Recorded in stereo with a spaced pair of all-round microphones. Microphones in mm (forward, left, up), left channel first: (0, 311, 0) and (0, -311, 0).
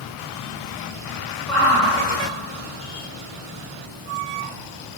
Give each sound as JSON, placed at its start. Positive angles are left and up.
{"t": 1.5, "sound": "a shout", "side_deg": 65, "distance_m": 3.5}